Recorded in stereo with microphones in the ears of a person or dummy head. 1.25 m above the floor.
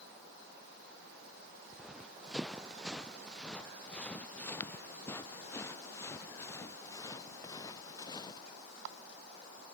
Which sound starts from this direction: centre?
Running footsteps, at 1.7 s.